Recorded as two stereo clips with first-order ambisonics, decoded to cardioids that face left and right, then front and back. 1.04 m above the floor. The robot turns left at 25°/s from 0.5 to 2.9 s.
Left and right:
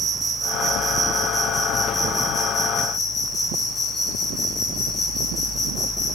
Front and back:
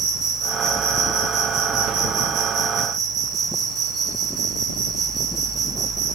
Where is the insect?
155° right, 2 m; by 6.2 s 145° left, 2 m.